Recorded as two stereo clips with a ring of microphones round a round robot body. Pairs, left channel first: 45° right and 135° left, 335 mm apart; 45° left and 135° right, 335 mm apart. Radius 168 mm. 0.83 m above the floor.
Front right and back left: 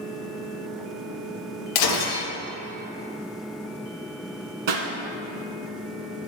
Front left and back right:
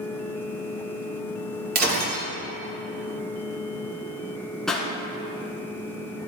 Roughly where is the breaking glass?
Right.